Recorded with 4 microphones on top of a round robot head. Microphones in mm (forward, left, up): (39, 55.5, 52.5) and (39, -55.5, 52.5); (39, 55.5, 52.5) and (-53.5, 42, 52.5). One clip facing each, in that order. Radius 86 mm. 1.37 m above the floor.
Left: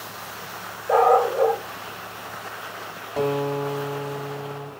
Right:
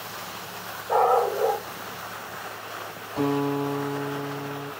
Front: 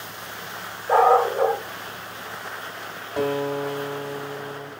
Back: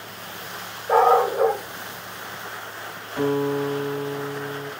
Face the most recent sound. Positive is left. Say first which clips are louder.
# left 1 dB, back 2 dB
turn(degrees=55)